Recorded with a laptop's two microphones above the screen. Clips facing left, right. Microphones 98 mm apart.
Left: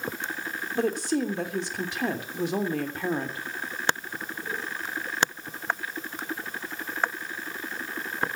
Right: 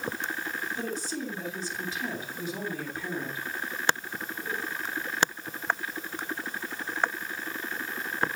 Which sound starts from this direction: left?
A woman speaking, at 0.8 s.